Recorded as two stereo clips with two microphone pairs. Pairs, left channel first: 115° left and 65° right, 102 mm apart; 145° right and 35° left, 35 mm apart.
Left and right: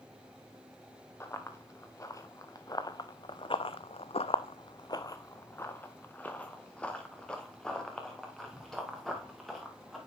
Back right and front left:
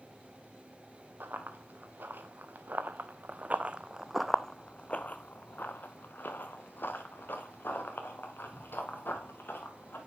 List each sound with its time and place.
1.2 s running footsteps: 50° left, 1.7 m; by 10.0 s 155° right, 3 m